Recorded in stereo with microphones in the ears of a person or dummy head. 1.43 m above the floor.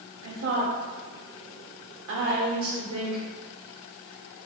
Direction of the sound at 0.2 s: 70° right (ahead or behind).